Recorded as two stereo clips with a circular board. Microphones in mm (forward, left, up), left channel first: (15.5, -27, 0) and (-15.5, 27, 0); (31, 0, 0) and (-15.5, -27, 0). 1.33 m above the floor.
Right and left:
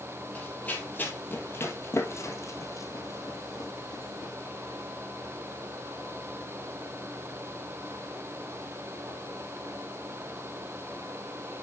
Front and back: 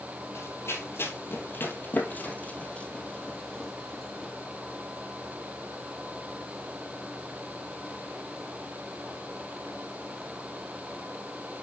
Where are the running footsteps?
10° left, 3 m; by 4.3 s 60° right, 3 m.